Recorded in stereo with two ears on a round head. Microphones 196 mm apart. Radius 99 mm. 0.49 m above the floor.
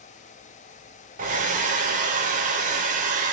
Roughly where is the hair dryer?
Right.